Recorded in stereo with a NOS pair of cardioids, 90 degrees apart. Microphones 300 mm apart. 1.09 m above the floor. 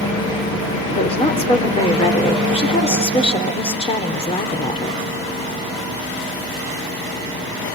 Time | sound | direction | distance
0.9 | a woman speaking | 20° left | 3.5 m